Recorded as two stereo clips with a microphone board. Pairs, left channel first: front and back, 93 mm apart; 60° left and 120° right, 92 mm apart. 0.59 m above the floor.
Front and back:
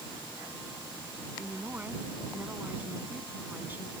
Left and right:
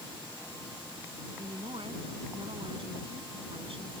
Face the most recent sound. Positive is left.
turn(degrees=-110)